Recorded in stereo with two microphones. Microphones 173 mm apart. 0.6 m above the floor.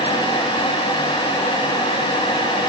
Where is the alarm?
I don't hear an alarm.